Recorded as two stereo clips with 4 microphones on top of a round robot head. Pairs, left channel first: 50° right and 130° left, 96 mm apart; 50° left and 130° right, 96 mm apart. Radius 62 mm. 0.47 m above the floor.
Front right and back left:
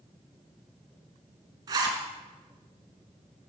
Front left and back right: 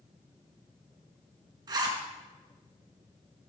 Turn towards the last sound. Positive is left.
turn(degrees=180)